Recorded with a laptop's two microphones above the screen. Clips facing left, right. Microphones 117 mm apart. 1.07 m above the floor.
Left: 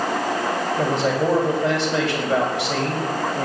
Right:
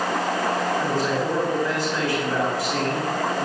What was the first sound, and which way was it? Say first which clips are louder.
A man speaking: left 3 dB; 85° left.